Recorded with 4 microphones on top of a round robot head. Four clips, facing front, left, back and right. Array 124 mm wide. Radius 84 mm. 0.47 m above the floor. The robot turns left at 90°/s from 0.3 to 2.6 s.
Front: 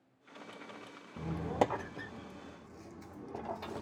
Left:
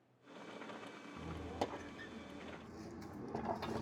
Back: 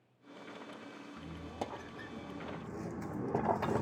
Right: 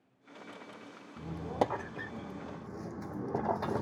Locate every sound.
1.2 s a squeak: 5° right, 0.7 m; by 3.8 s 135° right, 0.7 m